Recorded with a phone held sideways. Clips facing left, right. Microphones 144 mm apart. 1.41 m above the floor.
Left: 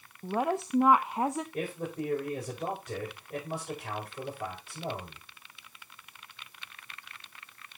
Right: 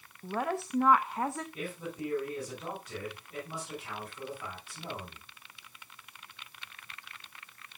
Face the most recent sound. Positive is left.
turn(degrees=60)  # may be behind; listen again after turning